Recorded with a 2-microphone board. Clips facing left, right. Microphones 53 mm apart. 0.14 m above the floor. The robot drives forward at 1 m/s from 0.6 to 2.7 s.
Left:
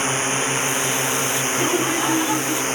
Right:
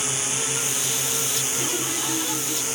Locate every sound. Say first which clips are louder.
0.0 s a drone: left 8 dB; 40° left (ahead or behind); by 2.8 s 45° left (ahead or behind)
1.5 s laughter: left 10 dB; 35° left (ahead or behind); by 2.6 s 30° left (ahead or behind)